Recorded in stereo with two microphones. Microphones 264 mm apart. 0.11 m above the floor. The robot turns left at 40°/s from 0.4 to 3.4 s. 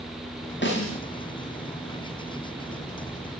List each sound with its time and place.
0.6 s a snare drum: 45° left (ahead or behind), 9.5 m; by 1.0 s 55° left (ahead or behind), 9.5 m